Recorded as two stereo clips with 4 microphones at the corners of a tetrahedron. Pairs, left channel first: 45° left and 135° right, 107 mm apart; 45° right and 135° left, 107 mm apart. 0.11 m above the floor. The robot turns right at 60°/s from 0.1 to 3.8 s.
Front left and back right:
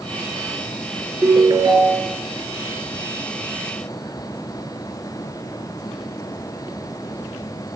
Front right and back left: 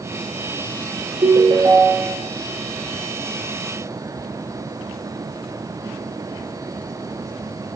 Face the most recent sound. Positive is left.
turn(degrees=-45)